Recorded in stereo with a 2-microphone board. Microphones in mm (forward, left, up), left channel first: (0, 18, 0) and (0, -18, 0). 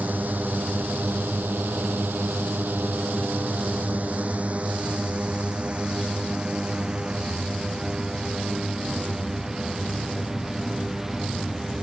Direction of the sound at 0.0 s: 55° right (ahead or behind).